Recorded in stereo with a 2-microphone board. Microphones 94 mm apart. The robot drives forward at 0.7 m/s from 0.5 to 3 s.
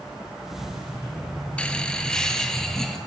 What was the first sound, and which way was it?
Laughter, 10° left (ahead or behind).